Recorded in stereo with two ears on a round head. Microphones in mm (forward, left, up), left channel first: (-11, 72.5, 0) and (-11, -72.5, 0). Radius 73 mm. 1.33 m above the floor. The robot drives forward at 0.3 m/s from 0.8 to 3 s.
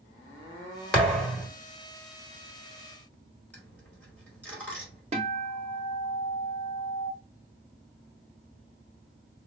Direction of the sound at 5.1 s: 40° right (ahead or behind).